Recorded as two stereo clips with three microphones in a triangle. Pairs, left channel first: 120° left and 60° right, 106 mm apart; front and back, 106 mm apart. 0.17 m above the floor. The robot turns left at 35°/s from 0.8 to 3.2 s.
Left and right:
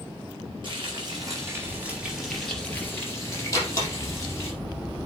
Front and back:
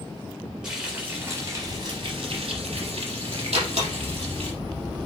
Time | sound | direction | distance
0.6 | frying | 100° right | 3.5 m
3.5 | a door slam | straight behind | 4 m